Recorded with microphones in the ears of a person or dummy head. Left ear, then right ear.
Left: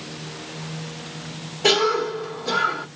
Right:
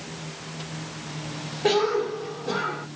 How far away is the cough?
About 2 m.